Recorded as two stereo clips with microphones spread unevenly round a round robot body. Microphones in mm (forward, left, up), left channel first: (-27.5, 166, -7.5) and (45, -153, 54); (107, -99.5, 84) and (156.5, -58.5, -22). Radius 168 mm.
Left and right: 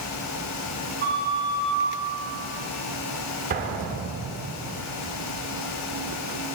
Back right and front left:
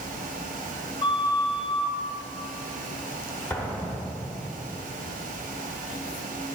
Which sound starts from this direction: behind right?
An explosion, at 3.5 s.